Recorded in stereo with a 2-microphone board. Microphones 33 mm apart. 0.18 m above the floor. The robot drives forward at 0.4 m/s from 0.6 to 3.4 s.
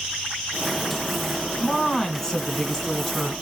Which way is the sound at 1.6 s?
15° left (ahead or behind).